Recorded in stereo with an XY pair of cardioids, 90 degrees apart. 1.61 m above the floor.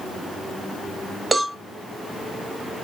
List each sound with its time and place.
1.3 s a cowbell: 25° right, 0.6 m